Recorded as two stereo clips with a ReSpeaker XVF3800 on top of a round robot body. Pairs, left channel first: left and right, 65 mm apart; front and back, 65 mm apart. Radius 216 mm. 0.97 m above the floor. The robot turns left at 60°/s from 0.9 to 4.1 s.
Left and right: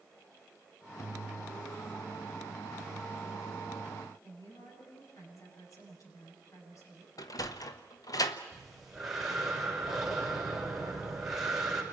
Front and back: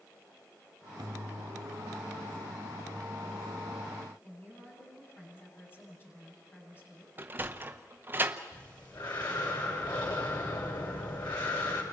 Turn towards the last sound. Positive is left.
turn(degrees=-5)